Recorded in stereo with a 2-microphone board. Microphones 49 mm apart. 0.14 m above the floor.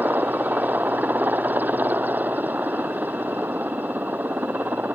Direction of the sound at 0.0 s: 35° right (ahead or behind).